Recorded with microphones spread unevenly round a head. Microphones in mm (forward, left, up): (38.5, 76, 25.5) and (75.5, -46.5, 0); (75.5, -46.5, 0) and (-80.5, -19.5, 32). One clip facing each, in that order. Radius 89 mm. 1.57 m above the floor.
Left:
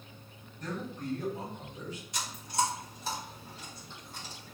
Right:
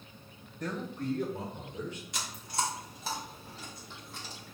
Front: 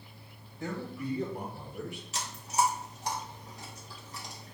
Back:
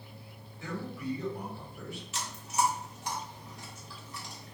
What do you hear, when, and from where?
0.6 s a man speaking: 45° right, 2.5 m
2.1 s chewing: 65° right, 1.4 m